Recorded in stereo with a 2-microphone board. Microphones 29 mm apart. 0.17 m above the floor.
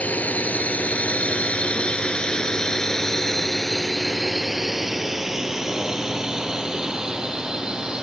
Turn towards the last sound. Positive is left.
turn(degrees=-25)  # may be behind; listen again after turning